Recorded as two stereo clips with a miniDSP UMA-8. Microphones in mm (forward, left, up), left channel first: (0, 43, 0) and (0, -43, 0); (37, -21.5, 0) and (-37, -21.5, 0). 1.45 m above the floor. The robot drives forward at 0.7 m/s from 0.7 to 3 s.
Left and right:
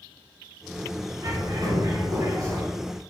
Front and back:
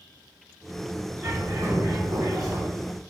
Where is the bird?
130° right, 1.9 m; by 2.6 s 150° right, 2.5 m.